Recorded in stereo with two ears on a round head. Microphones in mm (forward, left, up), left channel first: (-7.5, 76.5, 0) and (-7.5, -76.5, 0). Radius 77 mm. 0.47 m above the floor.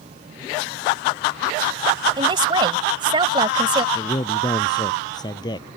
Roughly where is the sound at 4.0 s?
Left.